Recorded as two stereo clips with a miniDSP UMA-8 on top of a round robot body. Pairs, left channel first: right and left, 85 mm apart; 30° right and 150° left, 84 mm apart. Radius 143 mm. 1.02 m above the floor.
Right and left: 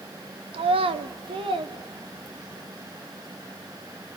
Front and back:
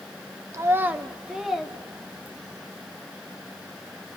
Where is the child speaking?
95° left, 0.7 m; by 2.6 s 55° left, 2.5 m.